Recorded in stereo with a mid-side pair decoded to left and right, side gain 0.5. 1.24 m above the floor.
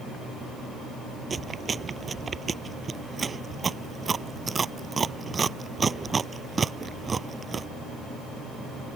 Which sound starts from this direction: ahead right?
Chewing, at 1.3 s.